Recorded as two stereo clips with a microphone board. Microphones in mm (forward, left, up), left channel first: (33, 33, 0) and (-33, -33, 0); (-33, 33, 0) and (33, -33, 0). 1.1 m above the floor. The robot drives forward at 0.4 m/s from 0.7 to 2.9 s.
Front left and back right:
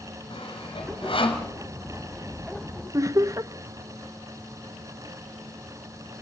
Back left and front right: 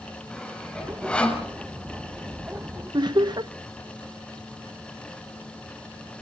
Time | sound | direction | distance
0.3 | sawing | 55° left | 5.5 m
2.9 | laughter | 80° right | 0.7 m